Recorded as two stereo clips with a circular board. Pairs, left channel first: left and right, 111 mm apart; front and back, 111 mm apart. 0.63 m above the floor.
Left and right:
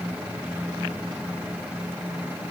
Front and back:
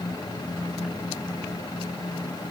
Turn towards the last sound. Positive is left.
No sound to turn to.